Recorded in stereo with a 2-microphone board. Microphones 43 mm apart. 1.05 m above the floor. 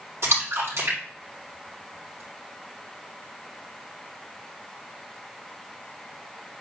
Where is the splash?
80° right, 4 m.